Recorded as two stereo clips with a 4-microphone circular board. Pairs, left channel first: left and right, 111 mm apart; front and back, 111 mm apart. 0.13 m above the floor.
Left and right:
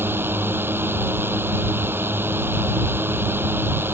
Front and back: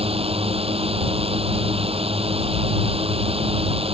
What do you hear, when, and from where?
0.0 s a drone: 160° right